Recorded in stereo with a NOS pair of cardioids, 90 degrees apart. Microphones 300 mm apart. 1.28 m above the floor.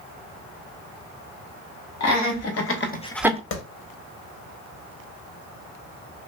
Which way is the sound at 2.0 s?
65° left.